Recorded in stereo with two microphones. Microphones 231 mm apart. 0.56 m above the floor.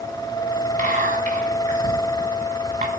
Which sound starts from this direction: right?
Whispering, at 0.8 s.